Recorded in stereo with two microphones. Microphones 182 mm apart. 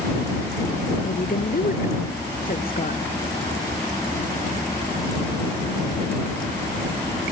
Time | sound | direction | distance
1.0 | a woman speaking | 55° left (ahead or behind) | ?